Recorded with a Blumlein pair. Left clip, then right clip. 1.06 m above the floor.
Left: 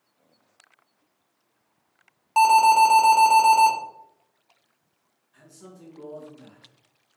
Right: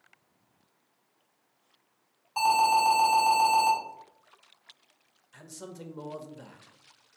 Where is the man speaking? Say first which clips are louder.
Right 4 dB; 35° right, 0.7 m.